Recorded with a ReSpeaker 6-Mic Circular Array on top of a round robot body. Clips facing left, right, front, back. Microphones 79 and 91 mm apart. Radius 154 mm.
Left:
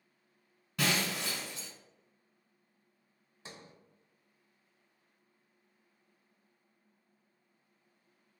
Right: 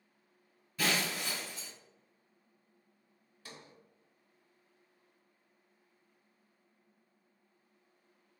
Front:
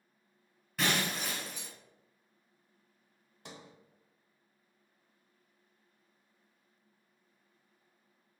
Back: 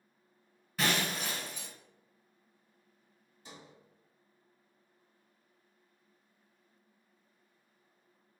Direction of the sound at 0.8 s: 90° left.